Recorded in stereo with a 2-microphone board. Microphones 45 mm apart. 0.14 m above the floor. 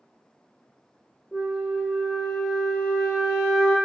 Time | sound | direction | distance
1.3 | a flute | 5° right (ahead or behind) | 0.9 m